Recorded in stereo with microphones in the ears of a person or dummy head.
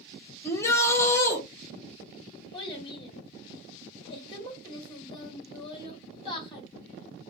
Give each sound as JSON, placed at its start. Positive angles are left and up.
{"t": 0.4, "sound": "a shout", "side_deg": 15, "distance_m": 1.0}
{"t": 2.5, "sound": "a child speaking", "side_deg": 25, "distance_m": 1.2}